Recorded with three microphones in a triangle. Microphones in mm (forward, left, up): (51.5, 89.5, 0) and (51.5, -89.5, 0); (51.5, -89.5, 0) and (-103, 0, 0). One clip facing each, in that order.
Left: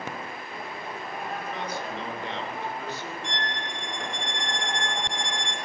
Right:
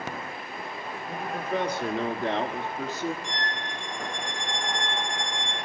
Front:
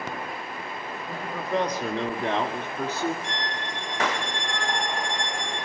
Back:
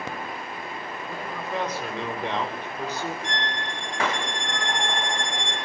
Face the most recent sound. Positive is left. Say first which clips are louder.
# even, back 1 dB
turn(degrees=105)